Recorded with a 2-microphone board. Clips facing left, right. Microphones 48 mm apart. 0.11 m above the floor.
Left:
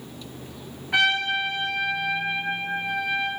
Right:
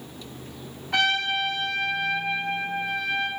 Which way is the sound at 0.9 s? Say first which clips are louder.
Left 2 dB; 10° left (ahead or behind).